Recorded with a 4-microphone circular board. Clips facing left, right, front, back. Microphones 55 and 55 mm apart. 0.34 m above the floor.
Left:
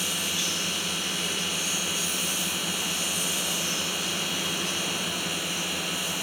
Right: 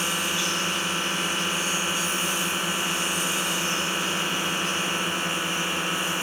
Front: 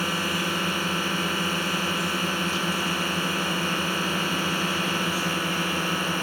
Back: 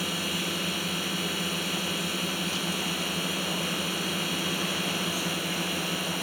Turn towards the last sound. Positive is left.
turn(degrees=-40)